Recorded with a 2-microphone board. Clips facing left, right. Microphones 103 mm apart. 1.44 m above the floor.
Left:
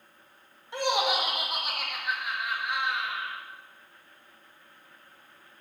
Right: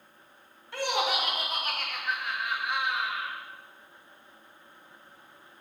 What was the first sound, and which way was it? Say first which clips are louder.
Laughter: left 2 dB; 20° left (ahead or behind).